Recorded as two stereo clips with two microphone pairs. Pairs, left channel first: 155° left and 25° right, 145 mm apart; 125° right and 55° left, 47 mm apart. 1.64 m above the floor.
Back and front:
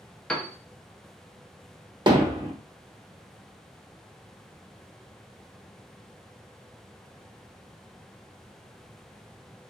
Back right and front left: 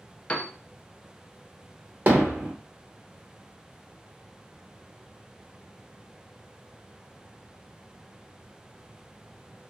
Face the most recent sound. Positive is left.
turn(degrees=25)